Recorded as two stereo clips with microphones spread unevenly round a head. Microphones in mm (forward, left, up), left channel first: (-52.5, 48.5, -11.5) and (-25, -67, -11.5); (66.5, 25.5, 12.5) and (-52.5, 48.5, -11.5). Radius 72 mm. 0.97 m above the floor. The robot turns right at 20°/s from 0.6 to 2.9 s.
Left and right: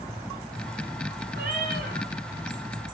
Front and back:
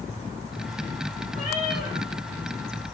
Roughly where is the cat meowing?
Ahead right.